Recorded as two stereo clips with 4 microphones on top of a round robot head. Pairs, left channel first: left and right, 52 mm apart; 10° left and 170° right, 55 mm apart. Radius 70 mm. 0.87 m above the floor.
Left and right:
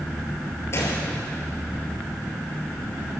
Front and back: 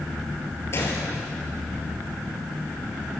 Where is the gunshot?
50° left, 5.5 m.